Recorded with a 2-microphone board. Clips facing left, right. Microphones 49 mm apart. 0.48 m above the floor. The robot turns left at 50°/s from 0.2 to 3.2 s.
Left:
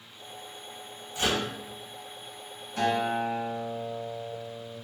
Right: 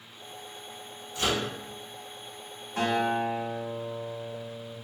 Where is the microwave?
25° left (ahead or behind), 1.9 m; by 1.5 s 10° left (ahead or behind), 1.9 m.